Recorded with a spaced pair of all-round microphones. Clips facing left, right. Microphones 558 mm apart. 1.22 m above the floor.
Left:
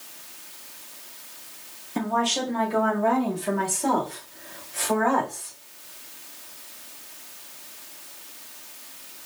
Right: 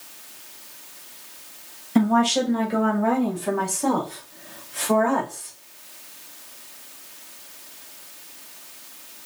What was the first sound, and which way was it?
A woman speaking, 85° right.